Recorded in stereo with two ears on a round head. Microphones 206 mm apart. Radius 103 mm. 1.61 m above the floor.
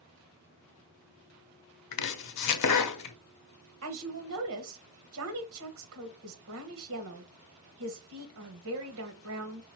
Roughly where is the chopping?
Left.